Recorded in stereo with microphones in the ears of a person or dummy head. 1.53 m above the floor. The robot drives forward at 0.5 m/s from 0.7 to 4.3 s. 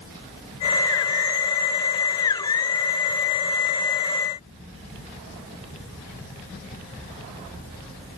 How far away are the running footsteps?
No running footsteps in this recording.